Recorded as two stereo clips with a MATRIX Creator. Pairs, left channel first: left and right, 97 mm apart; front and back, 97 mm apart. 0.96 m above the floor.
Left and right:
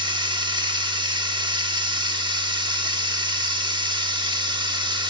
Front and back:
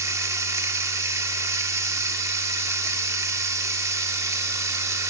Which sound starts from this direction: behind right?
Running water, at 0.0 s.